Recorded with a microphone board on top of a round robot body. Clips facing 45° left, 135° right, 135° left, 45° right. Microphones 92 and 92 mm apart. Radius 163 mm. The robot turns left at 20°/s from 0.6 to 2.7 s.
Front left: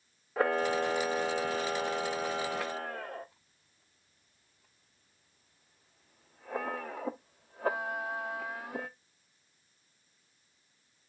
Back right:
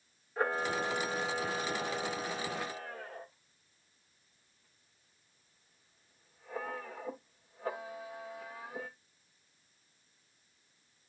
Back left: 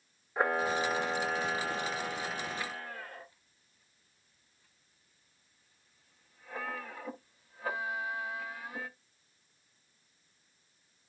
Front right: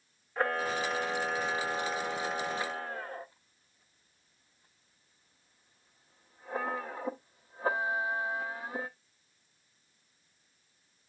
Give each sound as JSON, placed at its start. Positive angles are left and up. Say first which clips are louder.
{"t": 0.4, "sound": "a camera shutter", "louder": "front left 4 dB, back left 1 dB", "azimuth_deg": 55, "distance_m": 0.7}